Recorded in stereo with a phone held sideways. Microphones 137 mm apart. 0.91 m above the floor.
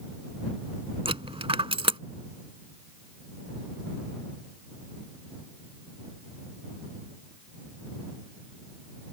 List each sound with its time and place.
1.1 s a dropped coin: 45° right (ahead or behind)